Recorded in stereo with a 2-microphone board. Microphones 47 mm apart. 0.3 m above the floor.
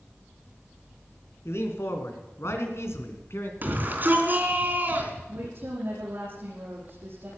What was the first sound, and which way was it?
A man speaking, 65° left (ahead or behind).